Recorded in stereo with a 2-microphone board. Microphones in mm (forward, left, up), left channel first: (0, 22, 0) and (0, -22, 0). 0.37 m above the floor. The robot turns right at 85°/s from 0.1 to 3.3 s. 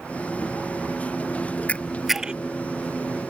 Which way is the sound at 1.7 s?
30° left (ahead or behind).